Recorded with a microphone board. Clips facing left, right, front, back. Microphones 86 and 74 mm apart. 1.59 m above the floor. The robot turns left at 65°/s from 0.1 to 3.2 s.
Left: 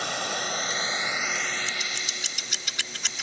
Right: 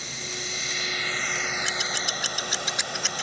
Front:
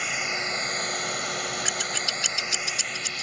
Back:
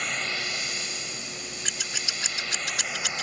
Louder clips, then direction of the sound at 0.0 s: Left 7 dB, front 2 dB; 85° left.